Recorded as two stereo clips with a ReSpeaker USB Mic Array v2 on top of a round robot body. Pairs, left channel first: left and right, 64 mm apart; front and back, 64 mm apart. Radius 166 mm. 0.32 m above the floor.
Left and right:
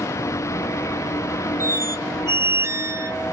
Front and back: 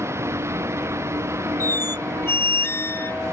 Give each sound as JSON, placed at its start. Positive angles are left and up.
{"t": 0.0, "sound": "a vehicle", "azimuth_deg": 130}
{"t": 1.6, "sound": "a squeak", "azimuth_deg": -50}